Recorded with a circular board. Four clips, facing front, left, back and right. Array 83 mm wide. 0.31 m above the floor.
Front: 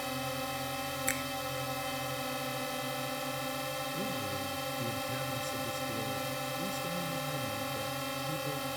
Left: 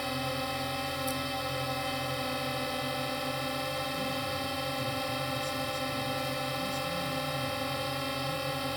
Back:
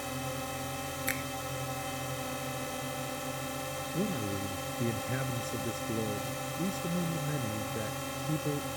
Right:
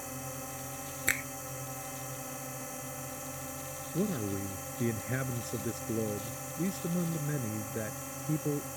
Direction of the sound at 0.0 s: 75° left.